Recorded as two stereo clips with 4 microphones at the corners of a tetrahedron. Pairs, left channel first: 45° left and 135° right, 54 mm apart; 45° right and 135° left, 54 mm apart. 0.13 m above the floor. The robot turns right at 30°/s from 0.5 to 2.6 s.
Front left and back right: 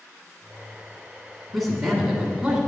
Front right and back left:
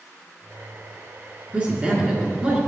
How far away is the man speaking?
About 1.3 m.